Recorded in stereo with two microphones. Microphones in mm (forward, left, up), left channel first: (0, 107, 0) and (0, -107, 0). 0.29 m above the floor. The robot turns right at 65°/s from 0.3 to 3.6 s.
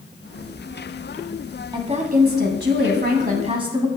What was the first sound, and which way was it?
A woman speaking, 150° right.